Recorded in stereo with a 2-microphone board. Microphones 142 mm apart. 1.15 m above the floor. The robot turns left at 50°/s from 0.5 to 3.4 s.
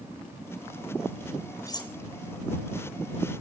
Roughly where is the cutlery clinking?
Left.